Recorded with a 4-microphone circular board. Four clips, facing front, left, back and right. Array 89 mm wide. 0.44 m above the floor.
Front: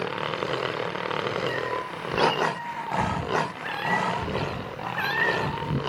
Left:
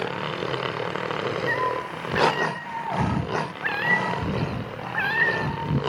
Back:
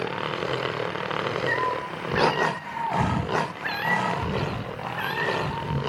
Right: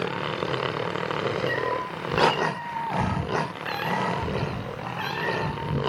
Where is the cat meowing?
130° left, 3.5 m; by 5.8 s 65° left, 2.5 m.